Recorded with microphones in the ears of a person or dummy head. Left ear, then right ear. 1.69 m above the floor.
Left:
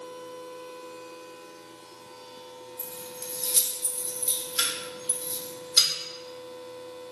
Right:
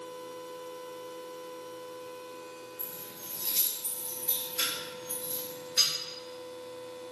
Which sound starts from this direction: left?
Keys jangling, at 2.8 s.